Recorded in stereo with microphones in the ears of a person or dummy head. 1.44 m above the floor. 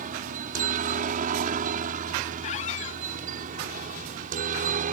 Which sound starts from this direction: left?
A squeak, at 2.4 s.